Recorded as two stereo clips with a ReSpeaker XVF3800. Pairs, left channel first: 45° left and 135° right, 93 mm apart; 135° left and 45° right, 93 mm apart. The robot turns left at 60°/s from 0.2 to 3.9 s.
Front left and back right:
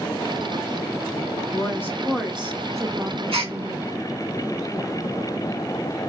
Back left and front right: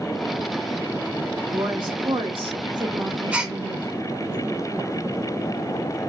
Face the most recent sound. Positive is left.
turn(degrees=-155)